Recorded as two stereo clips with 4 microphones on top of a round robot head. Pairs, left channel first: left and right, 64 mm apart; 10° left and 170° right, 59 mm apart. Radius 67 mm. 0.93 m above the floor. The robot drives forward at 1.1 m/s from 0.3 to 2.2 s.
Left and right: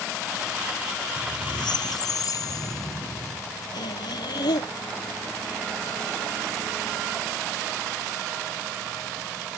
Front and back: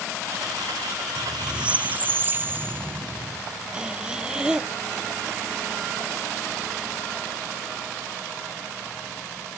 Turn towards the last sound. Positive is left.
turn(degrees=115)